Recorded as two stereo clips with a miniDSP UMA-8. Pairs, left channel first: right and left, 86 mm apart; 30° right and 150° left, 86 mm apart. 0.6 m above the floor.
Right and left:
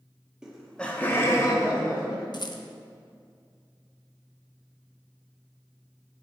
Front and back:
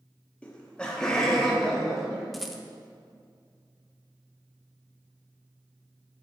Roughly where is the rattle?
Behind right.